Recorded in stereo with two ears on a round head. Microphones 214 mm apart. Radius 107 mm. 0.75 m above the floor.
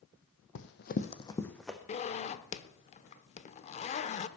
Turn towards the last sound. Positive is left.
turn(degrees=30)  # may be behind; listen again after turning